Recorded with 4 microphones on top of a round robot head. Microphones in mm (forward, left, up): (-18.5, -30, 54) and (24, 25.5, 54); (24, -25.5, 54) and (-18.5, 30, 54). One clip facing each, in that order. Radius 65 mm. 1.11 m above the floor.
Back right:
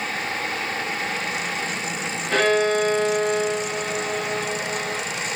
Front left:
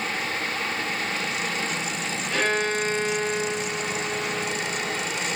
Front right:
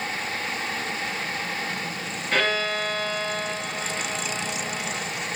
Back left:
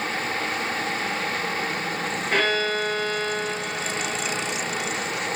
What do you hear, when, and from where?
2.3 s a violin: 145° right, 4.5 m